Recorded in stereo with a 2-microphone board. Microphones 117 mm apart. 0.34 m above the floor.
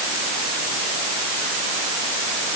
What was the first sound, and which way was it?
Only background noise.